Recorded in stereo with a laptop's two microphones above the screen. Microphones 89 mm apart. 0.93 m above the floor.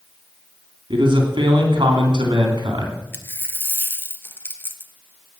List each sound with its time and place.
0.9 s a man speaking: 60° right (ahead or behind), 2.5 m
3.1 s a dropped coin: 25° left (ahead or behind), 1.2 m